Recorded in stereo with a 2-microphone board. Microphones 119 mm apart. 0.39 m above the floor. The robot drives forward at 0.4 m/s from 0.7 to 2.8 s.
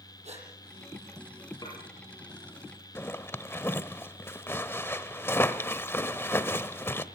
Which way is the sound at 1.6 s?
35° left (ahead or behind).